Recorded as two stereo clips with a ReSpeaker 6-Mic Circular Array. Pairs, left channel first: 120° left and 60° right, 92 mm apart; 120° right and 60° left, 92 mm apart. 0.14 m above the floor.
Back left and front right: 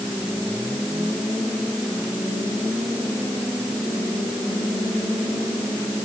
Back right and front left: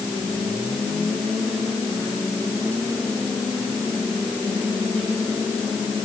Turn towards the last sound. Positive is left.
No sound to turn to.